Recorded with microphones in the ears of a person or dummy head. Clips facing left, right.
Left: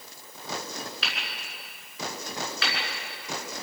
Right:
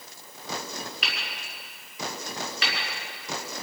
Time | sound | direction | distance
1.0 | hammering | 15° right (ahead or behind) | 6.5 m